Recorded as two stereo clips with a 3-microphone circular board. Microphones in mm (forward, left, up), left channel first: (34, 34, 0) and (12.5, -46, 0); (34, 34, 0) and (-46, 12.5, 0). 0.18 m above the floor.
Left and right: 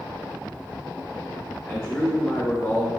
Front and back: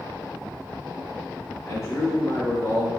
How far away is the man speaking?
About 1.9 m.